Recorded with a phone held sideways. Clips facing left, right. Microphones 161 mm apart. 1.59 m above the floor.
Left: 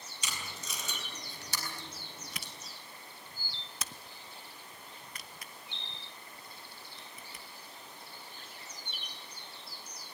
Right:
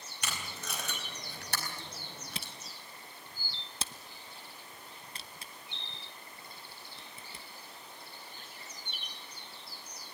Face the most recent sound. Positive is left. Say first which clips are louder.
# right 2 dB
turn(degrees=-30)  # may be behind; listen again after turning